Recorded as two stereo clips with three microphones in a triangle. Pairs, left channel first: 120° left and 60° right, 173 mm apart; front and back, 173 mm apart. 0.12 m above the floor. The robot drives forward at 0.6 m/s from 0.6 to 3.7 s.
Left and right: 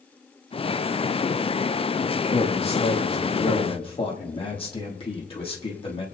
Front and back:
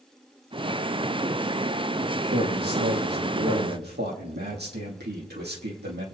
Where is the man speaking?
175° left, 3.5 m.